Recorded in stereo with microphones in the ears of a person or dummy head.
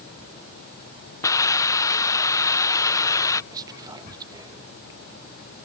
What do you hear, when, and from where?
1.2 s a hiss: 15° left (ahead or behind)
3.5 s whispering: 15° right (ahead or behind)